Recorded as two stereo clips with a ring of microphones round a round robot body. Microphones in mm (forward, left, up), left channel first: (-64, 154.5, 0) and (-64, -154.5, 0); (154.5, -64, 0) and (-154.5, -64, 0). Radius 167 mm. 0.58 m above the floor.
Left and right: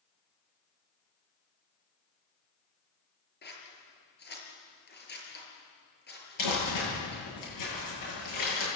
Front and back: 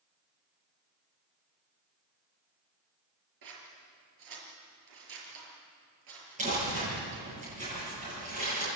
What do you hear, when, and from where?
3.4 s scissors: 150° left, 5 m
6.4 s crumpling: 110° left, 9 m